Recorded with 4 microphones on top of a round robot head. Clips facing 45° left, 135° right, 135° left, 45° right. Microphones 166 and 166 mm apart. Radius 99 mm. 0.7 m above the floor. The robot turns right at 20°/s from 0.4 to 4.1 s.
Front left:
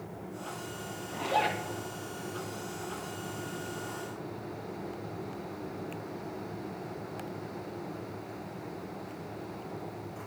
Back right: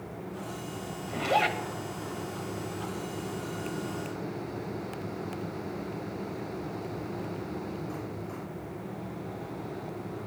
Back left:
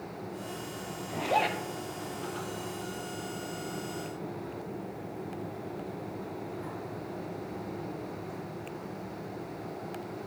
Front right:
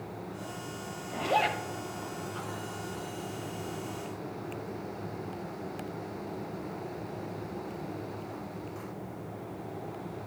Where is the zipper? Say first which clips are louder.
Back right 3 dB, even; 145° right, 1.0 m; by 1.6 s 135° right, 1.0 m.